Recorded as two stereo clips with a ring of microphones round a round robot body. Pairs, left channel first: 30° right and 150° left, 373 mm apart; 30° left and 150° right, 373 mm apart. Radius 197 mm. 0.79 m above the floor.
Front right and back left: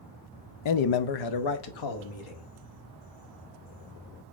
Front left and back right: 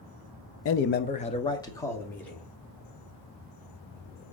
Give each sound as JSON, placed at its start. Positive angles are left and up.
{"t": 0.7, "sound": "a man speaking", "azimuth_deg": -10, "distance_m": 0.6}